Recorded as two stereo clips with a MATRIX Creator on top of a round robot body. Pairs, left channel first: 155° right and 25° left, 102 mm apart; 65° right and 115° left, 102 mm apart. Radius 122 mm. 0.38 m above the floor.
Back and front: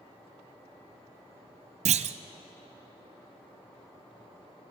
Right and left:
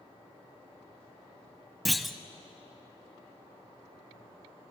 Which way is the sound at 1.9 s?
20° left.